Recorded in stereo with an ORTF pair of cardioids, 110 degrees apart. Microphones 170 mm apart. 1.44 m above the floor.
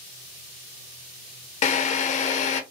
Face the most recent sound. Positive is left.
turn(degrees=45)